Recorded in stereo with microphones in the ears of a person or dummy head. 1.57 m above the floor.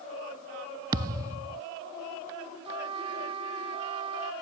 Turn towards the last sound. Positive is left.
turn(degrees=-30)  # may be behind; listen again after turning